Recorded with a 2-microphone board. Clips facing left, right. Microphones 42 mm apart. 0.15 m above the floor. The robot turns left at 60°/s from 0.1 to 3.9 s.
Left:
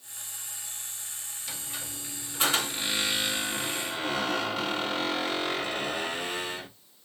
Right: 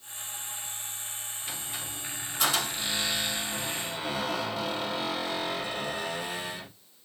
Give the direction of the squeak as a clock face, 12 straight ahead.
5 o'clock.